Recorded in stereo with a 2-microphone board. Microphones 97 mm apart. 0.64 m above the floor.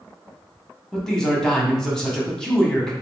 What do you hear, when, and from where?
0.9 s a man speaking: 5° left (ahead or behind), 0.8 m